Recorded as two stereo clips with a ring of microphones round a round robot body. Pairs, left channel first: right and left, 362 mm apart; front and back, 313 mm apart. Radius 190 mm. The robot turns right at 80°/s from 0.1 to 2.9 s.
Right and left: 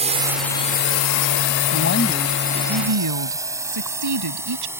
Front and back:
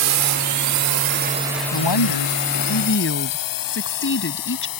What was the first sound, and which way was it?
A drone, 160° left.